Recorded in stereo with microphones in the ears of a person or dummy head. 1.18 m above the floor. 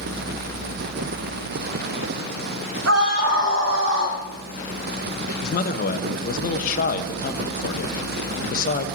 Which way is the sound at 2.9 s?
90° right.